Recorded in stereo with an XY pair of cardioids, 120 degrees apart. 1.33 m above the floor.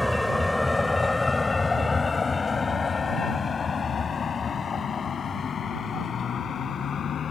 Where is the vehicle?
5° left; by 7.3 s 45° left.